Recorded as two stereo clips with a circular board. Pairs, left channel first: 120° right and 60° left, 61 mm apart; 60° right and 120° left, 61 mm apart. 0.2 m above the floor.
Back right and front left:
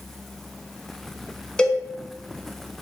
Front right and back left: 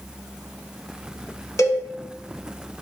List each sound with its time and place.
1.6 s a cowbell: 45° right, 0.7 m